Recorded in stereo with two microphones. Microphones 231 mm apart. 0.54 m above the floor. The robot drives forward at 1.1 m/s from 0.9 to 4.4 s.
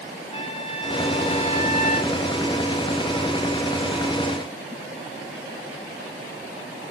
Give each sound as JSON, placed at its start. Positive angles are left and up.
{"t": 0.3, "sound": "a trumpet", "side_deg": 25, "distance_m": 3.0}